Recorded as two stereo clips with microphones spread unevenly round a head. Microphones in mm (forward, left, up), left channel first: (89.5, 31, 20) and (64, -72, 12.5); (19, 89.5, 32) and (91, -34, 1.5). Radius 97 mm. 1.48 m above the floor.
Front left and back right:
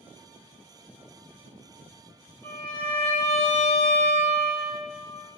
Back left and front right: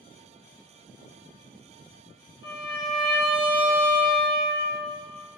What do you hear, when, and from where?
2.4 s a violin: 155° left, 0.6 m